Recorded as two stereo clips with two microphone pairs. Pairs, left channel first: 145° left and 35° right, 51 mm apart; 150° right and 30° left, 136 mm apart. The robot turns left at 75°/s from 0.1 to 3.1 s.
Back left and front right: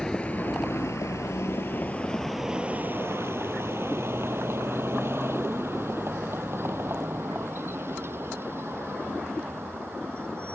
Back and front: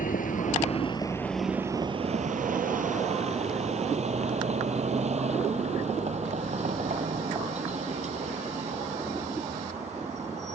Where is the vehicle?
140° right; by 10.6 s straight ahead.